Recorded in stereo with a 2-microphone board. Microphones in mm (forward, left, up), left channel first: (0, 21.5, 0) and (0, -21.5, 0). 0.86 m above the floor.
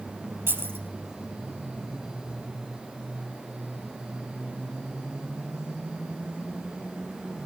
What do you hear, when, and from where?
0.5 s keys jangling: 65° right (ahead or behind), 3.5 m